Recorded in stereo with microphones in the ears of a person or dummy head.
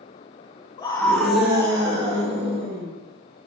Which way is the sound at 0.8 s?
25° left (ahead or behind).